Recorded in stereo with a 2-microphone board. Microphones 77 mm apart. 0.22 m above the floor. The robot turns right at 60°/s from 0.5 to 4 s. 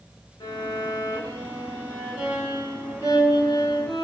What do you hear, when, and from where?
0.4 s a violin: 80° left, 1.7 m; by 4.0 s 70° right, 1.7 m